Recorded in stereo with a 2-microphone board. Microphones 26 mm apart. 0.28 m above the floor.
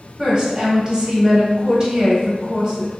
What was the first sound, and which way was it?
A woman speaking, 30° right (ahead or behind).